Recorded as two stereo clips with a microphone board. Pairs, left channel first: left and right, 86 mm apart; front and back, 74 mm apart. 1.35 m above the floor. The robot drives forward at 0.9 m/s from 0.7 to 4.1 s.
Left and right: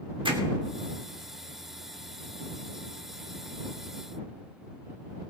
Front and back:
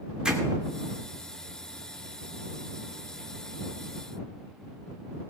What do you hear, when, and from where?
0.2 s hammering: 100° right, 2.5 m